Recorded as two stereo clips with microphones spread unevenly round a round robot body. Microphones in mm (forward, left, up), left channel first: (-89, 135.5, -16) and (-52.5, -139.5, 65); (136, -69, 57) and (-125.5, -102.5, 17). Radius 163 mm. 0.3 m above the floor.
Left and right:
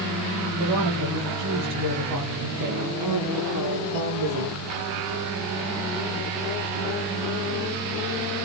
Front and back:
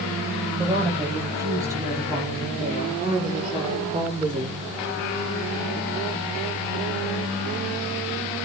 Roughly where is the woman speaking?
Right.